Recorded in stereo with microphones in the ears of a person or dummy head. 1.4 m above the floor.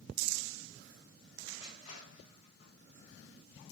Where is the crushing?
45° left (ahead or behind), 1.7 m.